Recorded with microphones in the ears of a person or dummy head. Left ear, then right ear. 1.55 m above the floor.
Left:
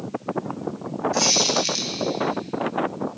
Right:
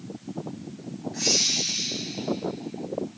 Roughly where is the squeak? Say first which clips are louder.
Left 3 dB; left.